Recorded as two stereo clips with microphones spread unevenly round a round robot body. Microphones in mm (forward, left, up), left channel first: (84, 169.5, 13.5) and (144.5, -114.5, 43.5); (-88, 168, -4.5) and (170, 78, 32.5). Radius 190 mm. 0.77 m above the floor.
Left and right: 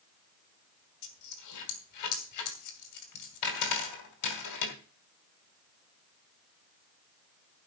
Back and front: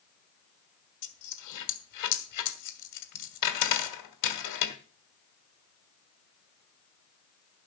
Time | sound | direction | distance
1.0 | a dropped coin | 150° left | 2 m